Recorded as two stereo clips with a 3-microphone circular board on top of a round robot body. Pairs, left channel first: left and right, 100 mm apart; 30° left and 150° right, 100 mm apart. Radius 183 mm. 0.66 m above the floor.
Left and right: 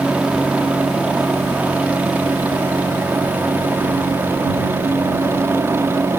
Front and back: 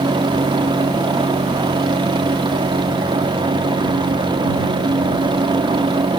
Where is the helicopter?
165° right; by 6.2 s 150° right.